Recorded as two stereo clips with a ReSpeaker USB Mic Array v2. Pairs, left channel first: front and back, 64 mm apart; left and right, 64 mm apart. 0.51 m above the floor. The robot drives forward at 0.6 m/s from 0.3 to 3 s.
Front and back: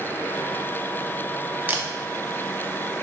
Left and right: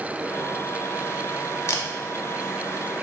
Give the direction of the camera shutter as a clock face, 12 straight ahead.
8 o'clock.